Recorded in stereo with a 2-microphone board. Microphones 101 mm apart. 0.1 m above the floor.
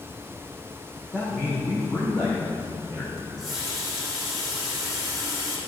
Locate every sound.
1.1 s a man speaking: 25° left (ahead or behind), 6 m; by 3.1 s 35° left (ahead or behind), 6.5 m
3.2 s a running tap: centre (ahead or behind), 4 m